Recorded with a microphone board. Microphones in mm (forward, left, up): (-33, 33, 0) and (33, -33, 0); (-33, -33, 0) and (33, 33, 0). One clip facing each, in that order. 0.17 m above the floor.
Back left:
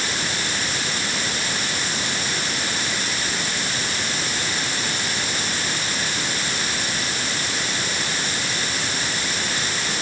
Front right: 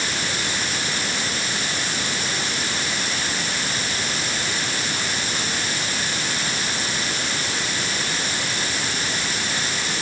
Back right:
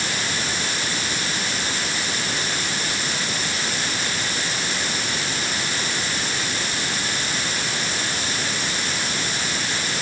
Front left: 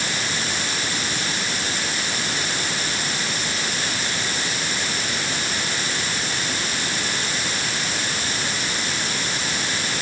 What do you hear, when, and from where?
Only background noise.